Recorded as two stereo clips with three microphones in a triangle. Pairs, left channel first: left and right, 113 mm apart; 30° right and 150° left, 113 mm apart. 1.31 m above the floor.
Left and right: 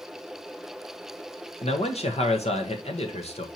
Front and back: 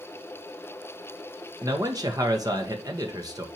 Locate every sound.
1.6 s a man speaking: 95° left, 1.3 m